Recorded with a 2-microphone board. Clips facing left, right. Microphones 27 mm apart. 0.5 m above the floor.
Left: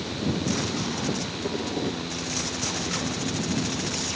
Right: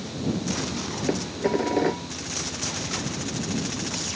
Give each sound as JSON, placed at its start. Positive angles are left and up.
{"t": 1.1, "sound": "dishes clattering", "side_deg": -45}